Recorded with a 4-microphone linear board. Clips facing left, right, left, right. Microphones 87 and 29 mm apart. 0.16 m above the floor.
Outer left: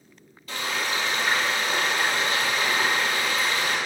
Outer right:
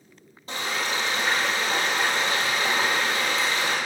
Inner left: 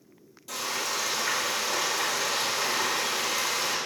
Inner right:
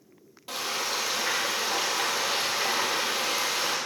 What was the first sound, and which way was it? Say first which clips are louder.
Frying: even, inner right 1 dB; 30° right (ahead or behind).